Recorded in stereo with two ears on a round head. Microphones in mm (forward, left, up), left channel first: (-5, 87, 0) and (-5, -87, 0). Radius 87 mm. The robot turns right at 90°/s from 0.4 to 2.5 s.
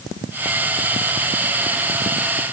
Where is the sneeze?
I don't hear a sneeze.